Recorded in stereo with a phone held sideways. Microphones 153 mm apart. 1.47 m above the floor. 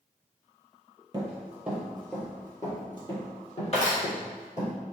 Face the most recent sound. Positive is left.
turn(degrees=55)  # may be behind; listen again after turning